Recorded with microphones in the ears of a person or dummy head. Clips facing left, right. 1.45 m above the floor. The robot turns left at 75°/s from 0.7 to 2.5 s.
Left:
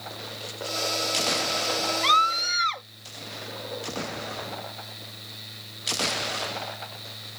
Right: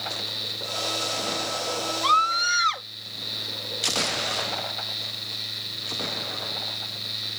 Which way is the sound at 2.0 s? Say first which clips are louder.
Right 1 dB; 30° left.